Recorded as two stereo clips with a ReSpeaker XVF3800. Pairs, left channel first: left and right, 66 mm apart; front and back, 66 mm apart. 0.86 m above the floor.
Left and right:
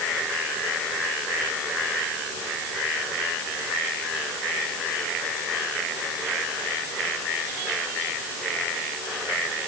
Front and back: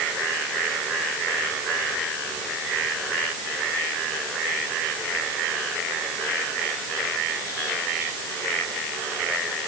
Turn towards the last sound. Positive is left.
No sound to turn to.